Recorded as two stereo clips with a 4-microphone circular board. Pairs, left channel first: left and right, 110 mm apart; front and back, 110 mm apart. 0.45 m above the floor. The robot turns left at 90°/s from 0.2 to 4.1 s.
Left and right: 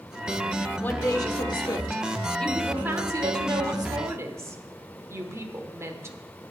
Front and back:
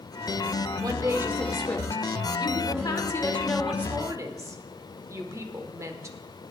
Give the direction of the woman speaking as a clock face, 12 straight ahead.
7 o'clock.